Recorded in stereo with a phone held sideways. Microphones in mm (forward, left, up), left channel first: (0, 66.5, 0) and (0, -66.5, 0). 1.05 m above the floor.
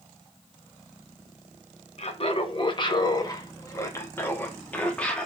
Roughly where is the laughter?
Left.